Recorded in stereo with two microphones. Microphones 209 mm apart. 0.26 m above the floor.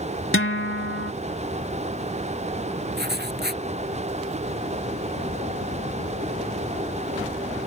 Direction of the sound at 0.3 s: 70° left (ahead or behind).